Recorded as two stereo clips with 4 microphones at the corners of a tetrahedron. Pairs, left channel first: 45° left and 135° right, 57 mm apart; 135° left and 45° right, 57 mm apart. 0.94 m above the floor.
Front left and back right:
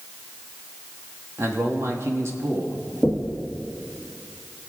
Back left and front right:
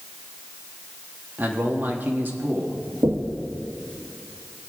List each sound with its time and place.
1.4 s a man speaking: 100° right, 1.7 m
3.0 s knocking: 65° right, 1.3 m